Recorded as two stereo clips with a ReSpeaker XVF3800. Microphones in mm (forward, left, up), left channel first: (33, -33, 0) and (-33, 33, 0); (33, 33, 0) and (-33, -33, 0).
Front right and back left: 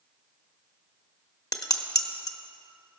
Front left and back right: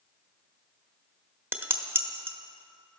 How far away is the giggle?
No giggle in this recording.